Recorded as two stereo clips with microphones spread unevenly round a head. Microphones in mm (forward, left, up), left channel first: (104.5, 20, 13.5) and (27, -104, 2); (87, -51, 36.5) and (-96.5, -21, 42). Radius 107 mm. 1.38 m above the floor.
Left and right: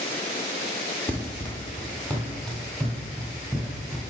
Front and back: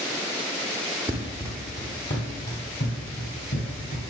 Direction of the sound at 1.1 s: 105° left.